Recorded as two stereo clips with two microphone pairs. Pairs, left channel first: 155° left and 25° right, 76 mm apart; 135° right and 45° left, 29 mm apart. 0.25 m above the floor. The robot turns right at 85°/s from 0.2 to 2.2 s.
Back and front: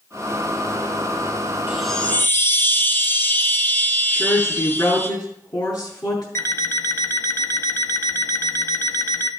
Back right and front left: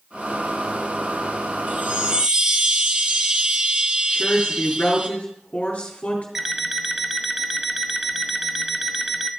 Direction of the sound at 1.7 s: 50° left.